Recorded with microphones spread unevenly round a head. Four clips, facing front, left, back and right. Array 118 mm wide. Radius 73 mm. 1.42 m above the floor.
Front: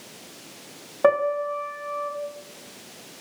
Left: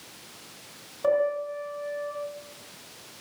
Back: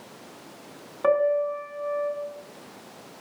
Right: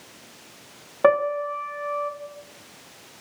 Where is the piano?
60° right, 1.8 m.